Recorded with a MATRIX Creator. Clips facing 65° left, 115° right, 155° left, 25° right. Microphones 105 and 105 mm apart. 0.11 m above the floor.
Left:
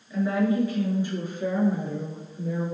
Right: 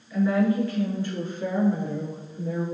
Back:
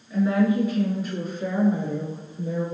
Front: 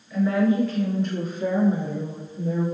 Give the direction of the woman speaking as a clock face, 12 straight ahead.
8 o'clock.